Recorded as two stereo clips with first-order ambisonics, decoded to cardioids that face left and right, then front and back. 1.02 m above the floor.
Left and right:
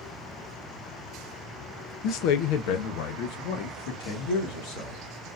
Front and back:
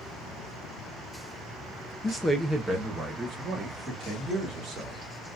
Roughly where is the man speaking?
Left.